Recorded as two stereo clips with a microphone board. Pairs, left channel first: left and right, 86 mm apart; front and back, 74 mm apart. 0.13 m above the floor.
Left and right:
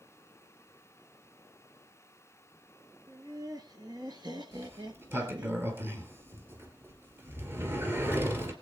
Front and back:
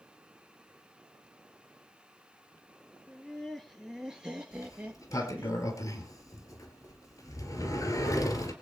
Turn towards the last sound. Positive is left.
turn(degrees=-30)